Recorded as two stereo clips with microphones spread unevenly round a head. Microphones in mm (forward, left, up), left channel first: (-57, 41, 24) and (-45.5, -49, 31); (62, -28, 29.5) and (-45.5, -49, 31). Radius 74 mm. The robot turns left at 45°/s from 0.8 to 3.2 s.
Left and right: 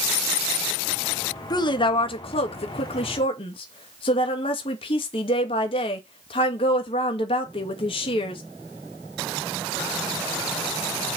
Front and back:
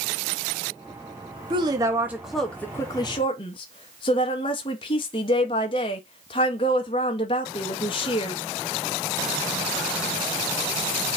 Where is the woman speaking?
140° left, 1.7 m; by 8.4 s 60° left, 1.7 m.